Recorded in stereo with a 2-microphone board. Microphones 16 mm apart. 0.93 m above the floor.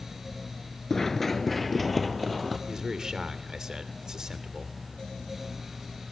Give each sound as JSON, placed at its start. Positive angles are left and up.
{"t": 0.9, "sound": "running footsteps", "side_deg": 25, "distance_m": 0.9}
{"t": 2.7, "sound": "a man speaking", "side_deg": -45, "distance_m": 2.5}